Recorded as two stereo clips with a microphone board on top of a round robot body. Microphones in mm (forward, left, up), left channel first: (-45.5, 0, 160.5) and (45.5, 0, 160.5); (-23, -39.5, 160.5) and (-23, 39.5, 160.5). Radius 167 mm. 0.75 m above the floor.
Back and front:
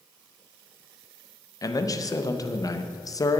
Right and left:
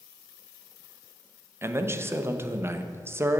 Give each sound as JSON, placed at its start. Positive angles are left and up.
{"t": 1.6, "sound": "a man speaking", "azimuth_deg": 140, "distance_m": 1.0}